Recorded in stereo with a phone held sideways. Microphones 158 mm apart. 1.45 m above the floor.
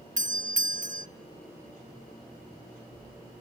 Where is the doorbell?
55° right (ahead or behind), 1.2 m.